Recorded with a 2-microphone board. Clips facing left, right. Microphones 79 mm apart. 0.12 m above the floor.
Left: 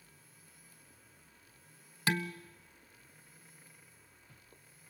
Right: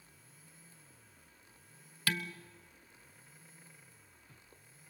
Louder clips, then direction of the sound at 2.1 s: Left 4 dB; 20° left (ahead or behind).